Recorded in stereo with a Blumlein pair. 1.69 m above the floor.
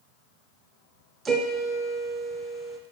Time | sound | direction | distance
1.2 | a piano | 20° right | 0.5 m